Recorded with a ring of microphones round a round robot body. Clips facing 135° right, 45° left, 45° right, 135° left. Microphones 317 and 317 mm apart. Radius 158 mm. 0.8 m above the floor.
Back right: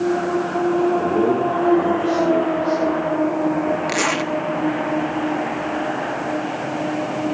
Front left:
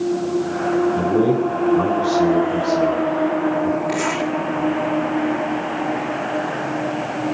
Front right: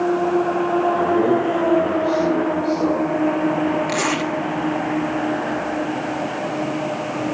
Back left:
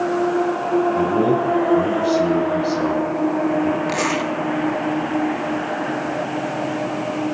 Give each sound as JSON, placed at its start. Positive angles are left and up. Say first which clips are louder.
{"t": 1.0, "sound": "a man speaking", "louder": "front left 1 dB, even", "azimuth_deg": 95, "distance_m": 3.5}
{"t": 3.9, "sound": "a zipper", "louder": "front left 1 dB, even", "azimuth_deg": -130, "distance_m": 1.2}